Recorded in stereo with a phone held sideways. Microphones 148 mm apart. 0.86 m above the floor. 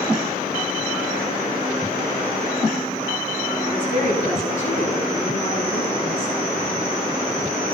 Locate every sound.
3.6 s a woman speaking: 55° left (ahead or behind), 7.5 m